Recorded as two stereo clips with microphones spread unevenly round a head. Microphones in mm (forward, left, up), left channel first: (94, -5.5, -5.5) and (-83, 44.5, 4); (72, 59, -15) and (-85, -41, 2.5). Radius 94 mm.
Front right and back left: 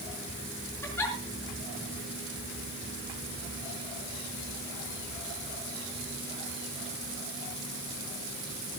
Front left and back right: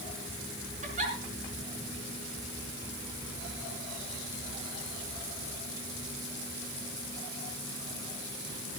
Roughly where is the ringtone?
I don't hear a ringtone.